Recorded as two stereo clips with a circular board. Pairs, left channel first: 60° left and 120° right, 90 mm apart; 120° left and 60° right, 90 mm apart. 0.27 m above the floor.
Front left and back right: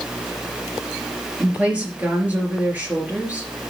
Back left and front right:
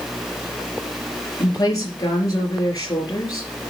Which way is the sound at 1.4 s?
165° left.